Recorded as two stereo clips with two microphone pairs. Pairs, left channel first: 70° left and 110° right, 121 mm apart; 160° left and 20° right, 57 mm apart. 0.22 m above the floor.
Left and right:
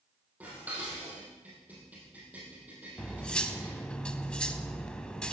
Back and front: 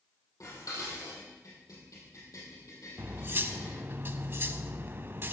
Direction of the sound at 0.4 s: 170° left.